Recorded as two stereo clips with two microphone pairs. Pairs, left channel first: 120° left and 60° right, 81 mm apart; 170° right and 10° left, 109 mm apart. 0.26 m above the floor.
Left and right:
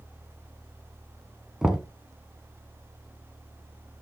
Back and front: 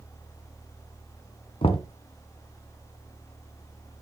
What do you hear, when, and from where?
1.6 s knocking: 145° right, 1.3 m